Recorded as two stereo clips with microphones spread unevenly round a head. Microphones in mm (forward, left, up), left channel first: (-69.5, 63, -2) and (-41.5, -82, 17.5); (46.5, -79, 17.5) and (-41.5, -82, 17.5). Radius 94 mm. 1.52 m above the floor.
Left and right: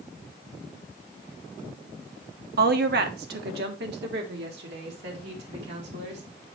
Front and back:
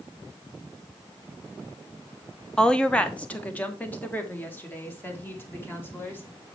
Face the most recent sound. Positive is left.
turn(degrees=-65)